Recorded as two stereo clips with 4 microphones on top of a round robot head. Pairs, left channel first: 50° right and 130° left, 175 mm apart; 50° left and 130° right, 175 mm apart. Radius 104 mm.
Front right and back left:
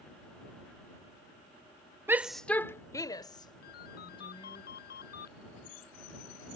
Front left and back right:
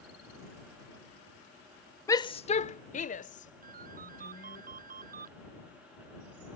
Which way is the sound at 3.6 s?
90° right.